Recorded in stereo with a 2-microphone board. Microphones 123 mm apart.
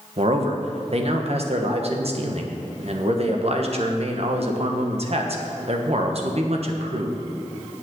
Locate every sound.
0.2 s a man speaking: 55° right (ahead or behind), 1.3 m